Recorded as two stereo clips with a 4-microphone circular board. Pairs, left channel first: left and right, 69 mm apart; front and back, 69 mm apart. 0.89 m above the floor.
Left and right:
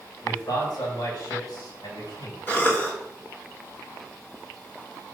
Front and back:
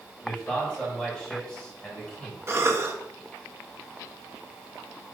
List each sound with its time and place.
0.2 s a man speaking: 80° left, 3.5 m
2.5 s a cough: 145° left, 1.3 m